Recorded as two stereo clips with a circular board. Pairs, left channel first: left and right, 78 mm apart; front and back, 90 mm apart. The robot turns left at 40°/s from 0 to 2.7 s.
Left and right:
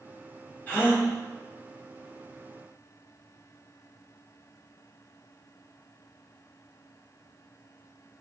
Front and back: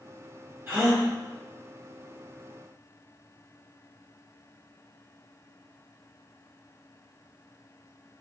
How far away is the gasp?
About 1.6 m.